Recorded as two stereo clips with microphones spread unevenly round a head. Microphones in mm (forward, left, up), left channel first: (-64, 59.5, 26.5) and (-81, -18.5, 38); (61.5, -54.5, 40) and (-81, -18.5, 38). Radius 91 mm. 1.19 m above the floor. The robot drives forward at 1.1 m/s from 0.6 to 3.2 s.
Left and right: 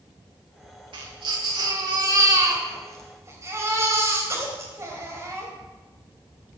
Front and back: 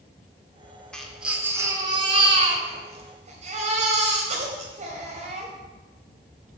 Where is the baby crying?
100° right, 1.5 m; by 5.5 s 150° right, 3 m.